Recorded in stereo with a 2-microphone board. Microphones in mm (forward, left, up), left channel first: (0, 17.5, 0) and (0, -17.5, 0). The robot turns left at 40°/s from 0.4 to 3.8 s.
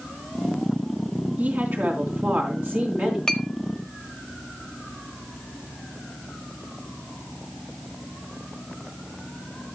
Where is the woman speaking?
60° right, 3.5 m; by 3.2 s 130° right, 3.5 m.